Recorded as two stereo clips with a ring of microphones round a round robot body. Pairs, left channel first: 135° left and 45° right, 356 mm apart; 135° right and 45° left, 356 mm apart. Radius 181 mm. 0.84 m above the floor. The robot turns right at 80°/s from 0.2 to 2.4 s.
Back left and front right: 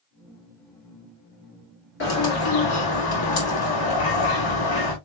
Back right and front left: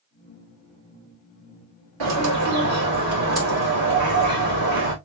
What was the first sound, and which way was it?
A bird, 75° left.